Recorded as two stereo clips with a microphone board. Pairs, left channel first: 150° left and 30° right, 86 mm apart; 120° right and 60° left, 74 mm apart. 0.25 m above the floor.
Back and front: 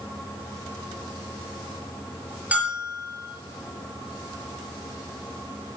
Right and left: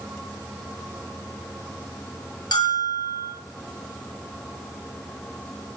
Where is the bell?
105° right, 6.5 m.